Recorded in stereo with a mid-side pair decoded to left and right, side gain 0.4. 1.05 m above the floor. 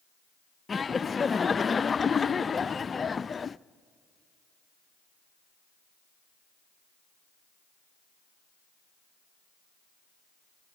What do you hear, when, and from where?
0.7 s laughter: 35° left, 0.5 m